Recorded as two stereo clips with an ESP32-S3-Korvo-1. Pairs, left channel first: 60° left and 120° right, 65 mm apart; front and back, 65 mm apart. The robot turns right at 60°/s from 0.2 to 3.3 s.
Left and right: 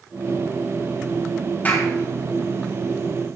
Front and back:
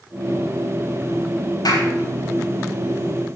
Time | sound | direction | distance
1.6 | a clap | 5° right | 4.5 m